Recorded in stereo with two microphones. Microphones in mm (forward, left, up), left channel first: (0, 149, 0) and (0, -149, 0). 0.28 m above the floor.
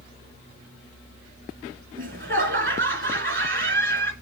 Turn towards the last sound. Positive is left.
turn(degrees=-40)  # may be behind; listen again after turning